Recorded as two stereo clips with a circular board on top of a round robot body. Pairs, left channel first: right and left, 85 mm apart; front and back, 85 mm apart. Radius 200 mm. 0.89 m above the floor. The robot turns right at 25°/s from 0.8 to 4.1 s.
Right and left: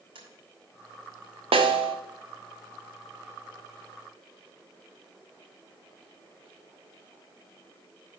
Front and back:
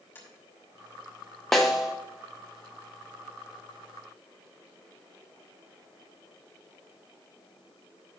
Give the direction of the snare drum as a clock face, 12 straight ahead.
9 o'clock.